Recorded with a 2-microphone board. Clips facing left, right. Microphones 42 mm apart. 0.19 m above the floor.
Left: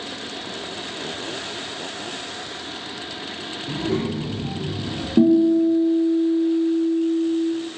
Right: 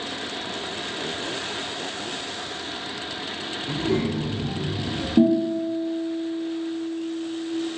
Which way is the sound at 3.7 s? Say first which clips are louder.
Even; 20° left (ahead or behind).